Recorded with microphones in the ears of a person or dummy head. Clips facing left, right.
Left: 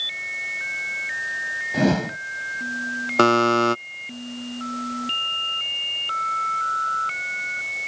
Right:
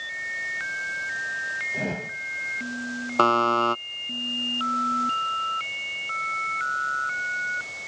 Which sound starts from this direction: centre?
A buzzer, at 3.2 s.